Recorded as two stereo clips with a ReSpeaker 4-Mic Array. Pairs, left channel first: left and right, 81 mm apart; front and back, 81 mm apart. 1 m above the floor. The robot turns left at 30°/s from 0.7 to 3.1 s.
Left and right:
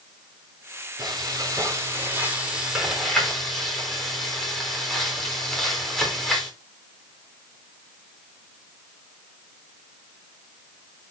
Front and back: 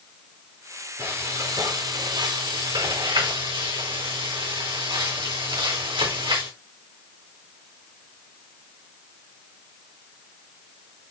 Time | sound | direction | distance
1.0 | frying | 120° right | 4 m